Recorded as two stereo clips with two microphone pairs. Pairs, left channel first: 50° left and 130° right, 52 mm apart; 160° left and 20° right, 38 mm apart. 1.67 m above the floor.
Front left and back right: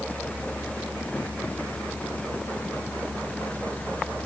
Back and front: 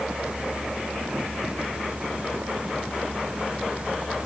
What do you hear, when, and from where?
Only background noise.